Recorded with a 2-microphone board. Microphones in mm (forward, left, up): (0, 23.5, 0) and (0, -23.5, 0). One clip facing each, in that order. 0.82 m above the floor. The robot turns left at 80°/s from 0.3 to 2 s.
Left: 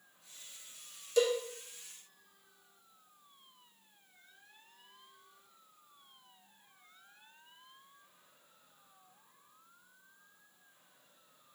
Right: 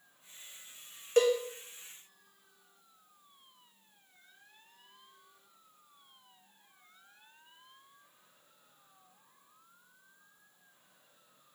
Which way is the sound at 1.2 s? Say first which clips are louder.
Right 3 dB; 45° right (ahead or behind).